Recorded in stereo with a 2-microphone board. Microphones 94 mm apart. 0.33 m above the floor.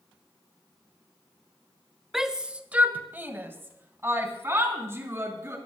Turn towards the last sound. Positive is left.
turn(degrees=-30)  # may be behind; listen again after turning